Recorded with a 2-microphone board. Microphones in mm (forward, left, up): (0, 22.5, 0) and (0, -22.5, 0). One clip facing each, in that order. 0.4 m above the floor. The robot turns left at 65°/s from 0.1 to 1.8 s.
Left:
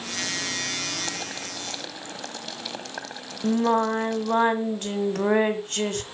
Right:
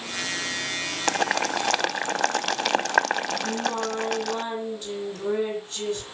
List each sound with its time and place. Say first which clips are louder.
1.1 s boiling: right 10 dB; 60° right (ahead or behind), 0.5 m; by 4.4 s 70° right (ahead or behind), 0.5 m
3.4 s singing: left 5 dB; 60° left (ahead or behind), 1.9 m